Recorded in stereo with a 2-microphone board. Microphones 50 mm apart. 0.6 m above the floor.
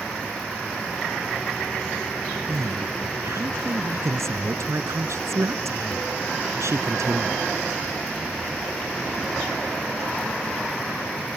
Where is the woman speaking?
75° right (ahead or behind).